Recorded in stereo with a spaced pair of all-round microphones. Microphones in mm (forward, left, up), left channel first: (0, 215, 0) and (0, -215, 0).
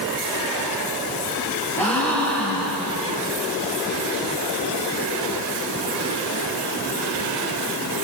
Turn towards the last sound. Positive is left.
turn(degrees=5)  # may be behind; listen again after turning